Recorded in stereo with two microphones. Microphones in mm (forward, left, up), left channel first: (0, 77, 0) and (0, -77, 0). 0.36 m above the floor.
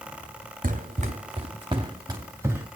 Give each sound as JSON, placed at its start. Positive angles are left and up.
{"t": 0.6, "sound": "running footsteps", "side_deg": -60, "distance_m": 1.7}